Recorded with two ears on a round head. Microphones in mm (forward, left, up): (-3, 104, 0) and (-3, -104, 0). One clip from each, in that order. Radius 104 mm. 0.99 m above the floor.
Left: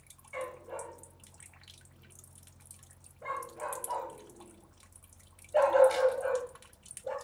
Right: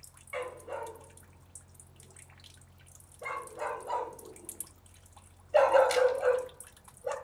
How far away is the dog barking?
About 2.5 m.